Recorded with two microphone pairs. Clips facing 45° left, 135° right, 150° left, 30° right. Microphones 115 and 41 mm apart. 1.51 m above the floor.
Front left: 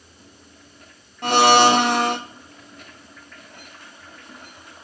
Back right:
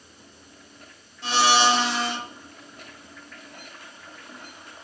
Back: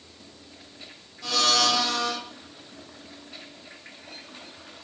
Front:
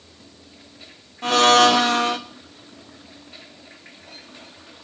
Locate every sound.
1.2 s a blender: 15° left, 1.0 m